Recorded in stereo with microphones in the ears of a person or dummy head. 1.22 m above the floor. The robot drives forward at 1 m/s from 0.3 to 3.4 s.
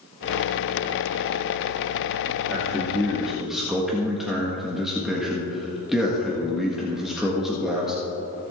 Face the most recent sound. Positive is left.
turn(degrees=5)  # may be behind; listen again after turning